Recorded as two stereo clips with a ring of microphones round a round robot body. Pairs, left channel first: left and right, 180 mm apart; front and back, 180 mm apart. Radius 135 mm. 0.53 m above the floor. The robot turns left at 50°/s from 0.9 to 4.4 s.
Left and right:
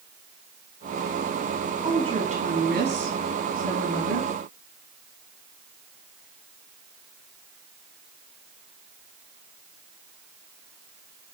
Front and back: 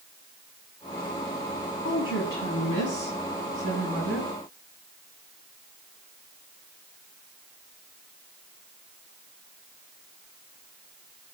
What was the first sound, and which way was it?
A woman speaking, 15° right.